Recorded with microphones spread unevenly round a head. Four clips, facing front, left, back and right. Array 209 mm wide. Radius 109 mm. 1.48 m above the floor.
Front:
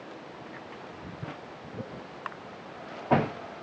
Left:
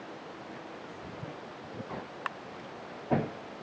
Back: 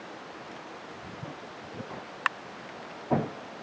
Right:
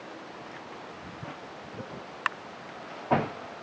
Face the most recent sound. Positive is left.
No sound to turn to.